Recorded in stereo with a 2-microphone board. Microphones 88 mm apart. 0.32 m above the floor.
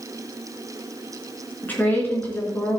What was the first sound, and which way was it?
A woman speaking, 20° left (ahead or behind).